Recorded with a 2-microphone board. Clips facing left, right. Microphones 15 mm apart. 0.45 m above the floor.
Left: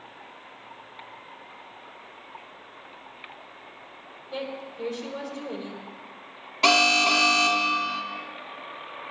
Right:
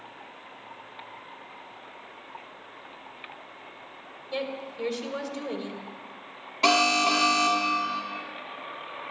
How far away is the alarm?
About 1.4 m.